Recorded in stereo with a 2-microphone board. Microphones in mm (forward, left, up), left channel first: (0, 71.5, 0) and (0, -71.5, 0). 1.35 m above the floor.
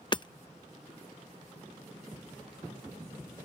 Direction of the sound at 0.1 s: 30° left (ahead or behind).